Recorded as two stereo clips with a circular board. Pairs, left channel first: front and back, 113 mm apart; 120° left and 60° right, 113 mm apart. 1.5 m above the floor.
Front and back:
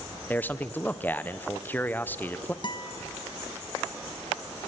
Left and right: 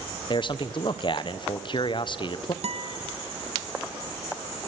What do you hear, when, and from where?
0.3 s a man speaking: 75° left, 1.0 m
2.6 s a guitar: 45° right, 1.2 m